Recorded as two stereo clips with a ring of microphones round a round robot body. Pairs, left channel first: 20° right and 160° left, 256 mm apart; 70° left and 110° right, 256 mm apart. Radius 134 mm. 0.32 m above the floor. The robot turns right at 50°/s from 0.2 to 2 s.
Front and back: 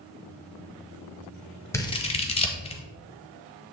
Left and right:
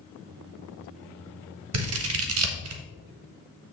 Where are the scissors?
100° right, 1.0 m; by 2.8 s 90° right, 1.0 m.